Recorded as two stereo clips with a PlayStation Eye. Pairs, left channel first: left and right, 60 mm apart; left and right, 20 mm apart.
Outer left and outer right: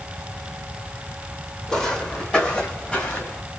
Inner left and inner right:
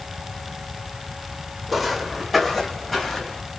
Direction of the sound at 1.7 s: 5° left (ahead or behind).